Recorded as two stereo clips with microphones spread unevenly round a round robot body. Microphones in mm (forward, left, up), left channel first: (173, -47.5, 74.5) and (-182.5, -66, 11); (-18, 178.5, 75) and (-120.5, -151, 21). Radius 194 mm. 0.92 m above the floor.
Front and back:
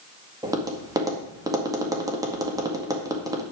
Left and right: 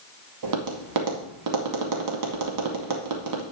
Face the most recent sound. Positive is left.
turn(degrees=-105)